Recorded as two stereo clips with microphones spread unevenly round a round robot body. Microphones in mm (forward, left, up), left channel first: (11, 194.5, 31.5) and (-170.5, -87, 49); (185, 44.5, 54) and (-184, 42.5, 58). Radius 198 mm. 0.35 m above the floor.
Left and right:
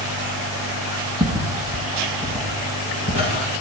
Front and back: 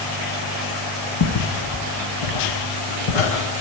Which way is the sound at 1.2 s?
40° right.